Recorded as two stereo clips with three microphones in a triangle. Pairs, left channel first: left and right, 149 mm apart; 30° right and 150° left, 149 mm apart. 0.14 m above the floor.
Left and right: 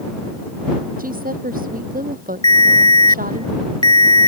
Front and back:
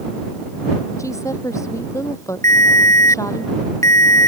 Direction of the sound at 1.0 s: 100° right.